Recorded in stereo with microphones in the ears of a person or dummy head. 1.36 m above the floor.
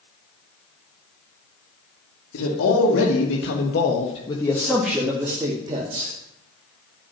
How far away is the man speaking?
About 2.5 m.